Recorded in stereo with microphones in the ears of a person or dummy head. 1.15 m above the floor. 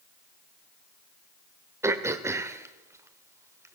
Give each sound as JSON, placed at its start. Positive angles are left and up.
{"t": 1.8, "sound": "throat clearing", "side_deg": -10, "distance_m": 1.2}